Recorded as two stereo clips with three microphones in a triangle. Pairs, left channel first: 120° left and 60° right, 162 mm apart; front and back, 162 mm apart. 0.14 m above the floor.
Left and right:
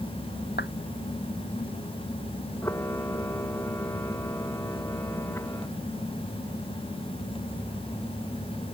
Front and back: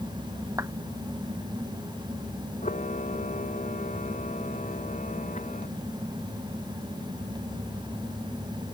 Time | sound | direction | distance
0.6 | a clap | 105° left | ?
2.6 | a camera shutter | 45° left | ?